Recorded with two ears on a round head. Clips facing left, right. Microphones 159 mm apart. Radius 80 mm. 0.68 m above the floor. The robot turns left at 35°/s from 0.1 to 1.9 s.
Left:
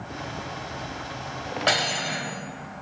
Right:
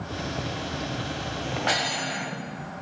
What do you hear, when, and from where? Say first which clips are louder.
1.7 s cutlery clinking: left 5 dB; 80° left, 1.9 m